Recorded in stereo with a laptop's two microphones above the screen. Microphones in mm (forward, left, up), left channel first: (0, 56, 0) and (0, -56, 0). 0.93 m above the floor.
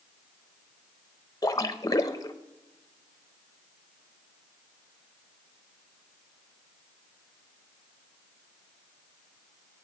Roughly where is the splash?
Left.